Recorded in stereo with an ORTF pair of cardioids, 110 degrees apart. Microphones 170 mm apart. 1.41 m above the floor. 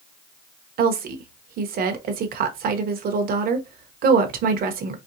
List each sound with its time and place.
0.8 s a woman speaking: 60° right, 0.9 m